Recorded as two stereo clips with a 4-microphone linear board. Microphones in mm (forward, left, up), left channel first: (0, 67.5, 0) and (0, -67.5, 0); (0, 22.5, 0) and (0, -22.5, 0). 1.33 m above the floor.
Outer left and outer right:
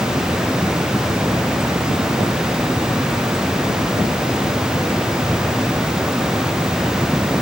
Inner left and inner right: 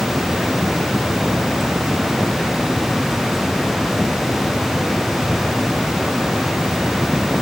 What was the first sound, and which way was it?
Only background noise.